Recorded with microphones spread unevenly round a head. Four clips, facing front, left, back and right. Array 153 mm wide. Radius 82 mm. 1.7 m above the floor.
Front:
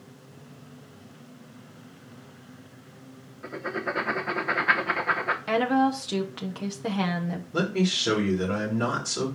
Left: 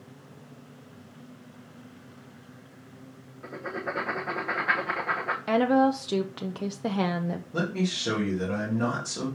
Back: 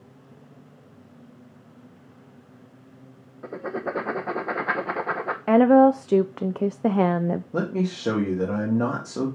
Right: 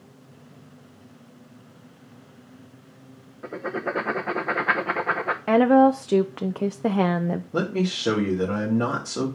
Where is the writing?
145° right, 0.9 m.